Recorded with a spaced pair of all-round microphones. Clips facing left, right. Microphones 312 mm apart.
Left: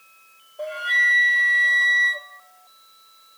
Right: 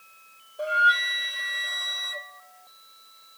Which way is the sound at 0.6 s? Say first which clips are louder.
Even; 10° right (ahead or behind).